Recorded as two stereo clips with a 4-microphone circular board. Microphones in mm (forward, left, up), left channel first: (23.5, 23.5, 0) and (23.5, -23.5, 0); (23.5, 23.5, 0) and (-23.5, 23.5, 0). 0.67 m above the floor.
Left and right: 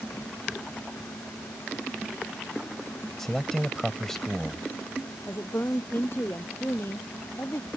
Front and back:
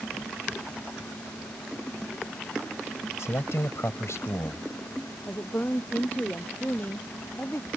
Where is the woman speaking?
50° left.